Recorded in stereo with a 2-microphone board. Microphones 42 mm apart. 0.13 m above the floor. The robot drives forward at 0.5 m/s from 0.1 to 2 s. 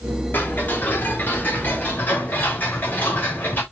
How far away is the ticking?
About 4 m.